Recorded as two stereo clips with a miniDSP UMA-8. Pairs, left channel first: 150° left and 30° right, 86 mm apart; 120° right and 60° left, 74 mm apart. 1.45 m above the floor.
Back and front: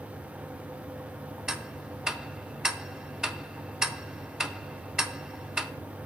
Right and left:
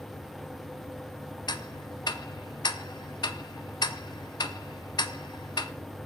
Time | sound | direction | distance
1.5 | ticking | 110° right | 0.6 m